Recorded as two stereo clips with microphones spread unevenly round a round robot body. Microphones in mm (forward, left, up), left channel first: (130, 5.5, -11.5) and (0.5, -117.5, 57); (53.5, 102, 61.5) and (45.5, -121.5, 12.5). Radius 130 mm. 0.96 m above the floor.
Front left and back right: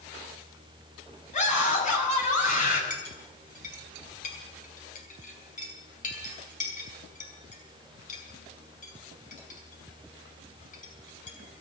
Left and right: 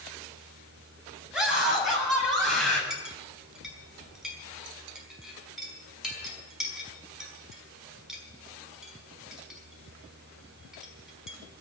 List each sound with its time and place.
1.3 s a scream: 5° right, 7.5 m; by 2.8 s straight ahead, 7.5 m
2.9 s a clink: 5° right, 5 m